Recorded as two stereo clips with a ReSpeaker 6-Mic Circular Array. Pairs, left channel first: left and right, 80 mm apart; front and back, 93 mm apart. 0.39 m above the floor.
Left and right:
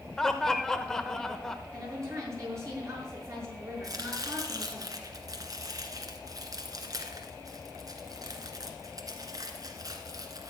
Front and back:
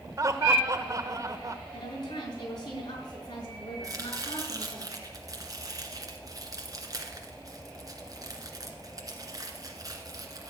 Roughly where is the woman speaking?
Ahead right.